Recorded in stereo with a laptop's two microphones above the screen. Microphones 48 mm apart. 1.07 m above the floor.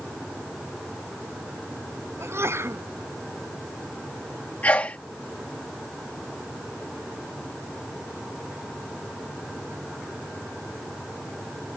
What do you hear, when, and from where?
2.2 s a sneeze: 60° right (ahead or behind)
4.6 s a sneeze: 35° left (ahead or behind)